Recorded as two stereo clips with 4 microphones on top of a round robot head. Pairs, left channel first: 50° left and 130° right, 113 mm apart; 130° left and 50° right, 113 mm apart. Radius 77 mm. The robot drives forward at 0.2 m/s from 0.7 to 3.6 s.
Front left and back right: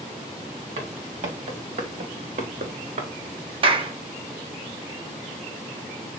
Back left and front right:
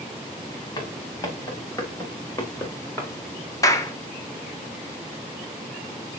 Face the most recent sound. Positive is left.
turn(degrees=-170)